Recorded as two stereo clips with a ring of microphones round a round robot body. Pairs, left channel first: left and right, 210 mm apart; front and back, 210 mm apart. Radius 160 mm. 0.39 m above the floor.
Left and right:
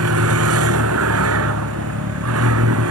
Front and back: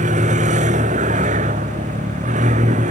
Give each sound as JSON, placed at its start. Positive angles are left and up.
{"t": 0.0, "sound": "a vehicle", "azimuth_deg": -115}